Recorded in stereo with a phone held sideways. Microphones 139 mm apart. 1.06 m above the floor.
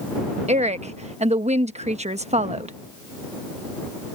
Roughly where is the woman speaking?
Right.